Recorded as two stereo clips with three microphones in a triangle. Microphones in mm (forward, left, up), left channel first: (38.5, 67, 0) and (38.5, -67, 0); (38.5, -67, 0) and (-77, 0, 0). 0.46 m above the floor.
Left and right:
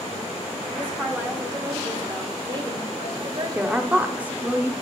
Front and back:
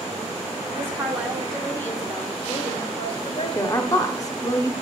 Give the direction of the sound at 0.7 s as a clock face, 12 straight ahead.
5 o'clock.